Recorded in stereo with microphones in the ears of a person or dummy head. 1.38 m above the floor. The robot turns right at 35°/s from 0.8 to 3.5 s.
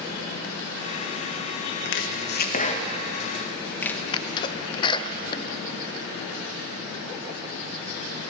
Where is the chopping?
65° left (ahead or behind), 1.6 m; by 4.0 s 10° left (ahead or behind), 1.6 m.